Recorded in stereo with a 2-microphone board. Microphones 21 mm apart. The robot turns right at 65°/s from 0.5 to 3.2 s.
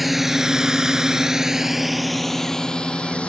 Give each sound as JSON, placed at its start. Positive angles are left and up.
{"t": 0.0, "sound": "a drone", "side_deg": -5}